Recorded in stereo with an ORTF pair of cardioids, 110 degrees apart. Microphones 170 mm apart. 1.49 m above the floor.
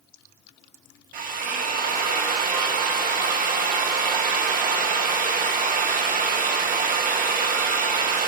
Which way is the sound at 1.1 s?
55° right.